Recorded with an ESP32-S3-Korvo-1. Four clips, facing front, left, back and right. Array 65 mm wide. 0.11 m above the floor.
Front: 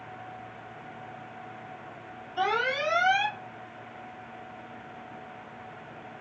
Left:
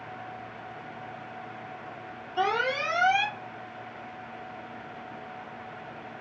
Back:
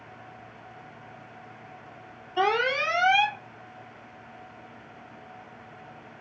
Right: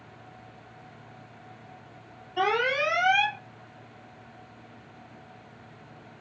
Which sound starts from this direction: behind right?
An alarm, at 2.4 s.